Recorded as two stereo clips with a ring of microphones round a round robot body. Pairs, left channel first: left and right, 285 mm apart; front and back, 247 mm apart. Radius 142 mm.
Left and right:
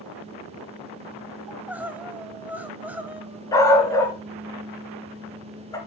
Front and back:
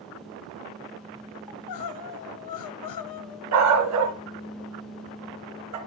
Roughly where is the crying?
Ahead.